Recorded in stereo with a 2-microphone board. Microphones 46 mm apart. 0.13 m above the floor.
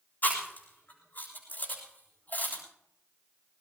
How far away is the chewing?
About 8 m.